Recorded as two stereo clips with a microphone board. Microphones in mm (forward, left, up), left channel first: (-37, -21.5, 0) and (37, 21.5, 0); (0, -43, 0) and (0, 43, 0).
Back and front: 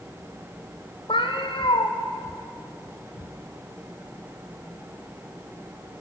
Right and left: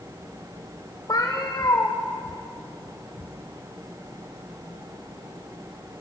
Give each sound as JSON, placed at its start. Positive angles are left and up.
{"t": 1.1, "sound": "a cat meowing", "azimuth_deg": -135, "distance_m": 4.5}